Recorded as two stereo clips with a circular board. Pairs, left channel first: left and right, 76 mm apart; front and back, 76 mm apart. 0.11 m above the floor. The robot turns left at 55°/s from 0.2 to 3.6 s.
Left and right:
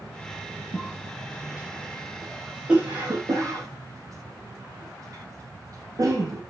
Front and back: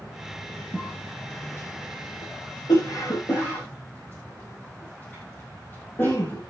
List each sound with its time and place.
0.7 s a cough: 95° left, 3 m; by 6.4 s 60° right, 3 m